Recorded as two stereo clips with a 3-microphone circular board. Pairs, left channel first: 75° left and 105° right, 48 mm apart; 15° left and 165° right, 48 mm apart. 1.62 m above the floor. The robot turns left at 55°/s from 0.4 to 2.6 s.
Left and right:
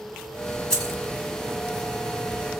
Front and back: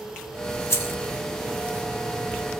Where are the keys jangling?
5° left, 3.5 m; by 1.0 s 10° right, 3.5 m.